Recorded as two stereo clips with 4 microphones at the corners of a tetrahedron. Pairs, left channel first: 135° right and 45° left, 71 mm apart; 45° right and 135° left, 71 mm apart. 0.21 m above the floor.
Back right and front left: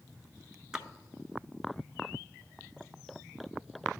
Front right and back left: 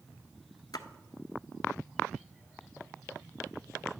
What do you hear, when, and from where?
0.7 s a splash: 40° right, 0.6 m